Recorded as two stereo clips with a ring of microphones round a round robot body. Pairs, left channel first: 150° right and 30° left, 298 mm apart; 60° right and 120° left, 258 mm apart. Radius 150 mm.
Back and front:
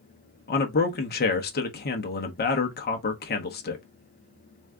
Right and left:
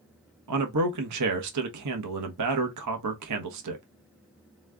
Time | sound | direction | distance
0.5 | a man speaking | 150° left | 1.1 m